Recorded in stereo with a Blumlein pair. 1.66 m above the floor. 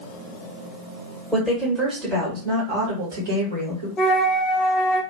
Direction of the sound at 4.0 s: 20° left.